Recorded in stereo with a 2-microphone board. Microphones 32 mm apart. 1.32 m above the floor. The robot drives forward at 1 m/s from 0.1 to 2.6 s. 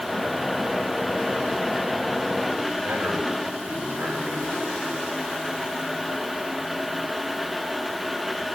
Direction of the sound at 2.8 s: 85° right.